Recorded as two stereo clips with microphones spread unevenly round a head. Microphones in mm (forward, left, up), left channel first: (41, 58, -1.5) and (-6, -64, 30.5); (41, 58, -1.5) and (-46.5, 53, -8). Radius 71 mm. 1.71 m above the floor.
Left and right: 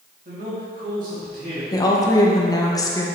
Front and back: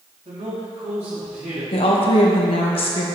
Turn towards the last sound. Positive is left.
turn(degrees=0)